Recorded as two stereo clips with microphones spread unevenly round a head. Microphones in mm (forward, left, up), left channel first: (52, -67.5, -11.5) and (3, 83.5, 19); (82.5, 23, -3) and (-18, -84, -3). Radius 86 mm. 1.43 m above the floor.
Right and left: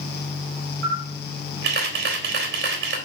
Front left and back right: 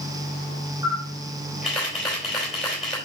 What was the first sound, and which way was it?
A camera shutter, 135° left.